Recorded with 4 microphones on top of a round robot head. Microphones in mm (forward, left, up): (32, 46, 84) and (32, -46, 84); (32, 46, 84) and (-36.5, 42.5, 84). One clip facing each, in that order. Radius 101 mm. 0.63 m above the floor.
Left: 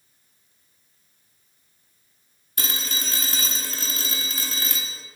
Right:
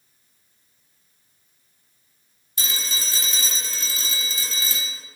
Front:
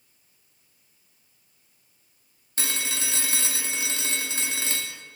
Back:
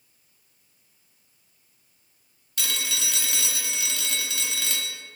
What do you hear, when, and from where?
2.6 s a phone ringing: 60° left, 1.0 m